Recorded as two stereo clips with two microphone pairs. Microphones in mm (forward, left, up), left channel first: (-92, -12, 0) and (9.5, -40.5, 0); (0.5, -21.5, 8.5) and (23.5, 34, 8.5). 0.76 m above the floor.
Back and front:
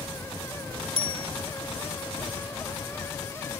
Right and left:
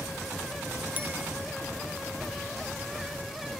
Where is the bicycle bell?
5° left.